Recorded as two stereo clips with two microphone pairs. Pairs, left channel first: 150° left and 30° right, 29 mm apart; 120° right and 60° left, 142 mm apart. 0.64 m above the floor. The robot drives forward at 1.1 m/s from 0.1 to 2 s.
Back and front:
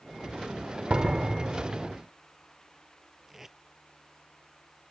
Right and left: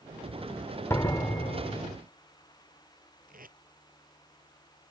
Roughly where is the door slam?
Ahead right.